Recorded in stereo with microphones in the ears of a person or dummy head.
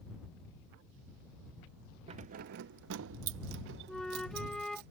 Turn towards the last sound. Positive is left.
turn(degrees=0)  # may be behind; listen again after turning